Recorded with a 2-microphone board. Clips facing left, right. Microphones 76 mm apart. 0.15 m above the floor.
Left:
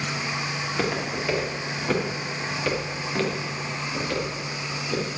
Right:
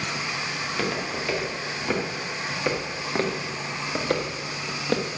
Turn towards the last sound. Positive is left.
turn(degrees=-70)  # may be behind; listen again after turning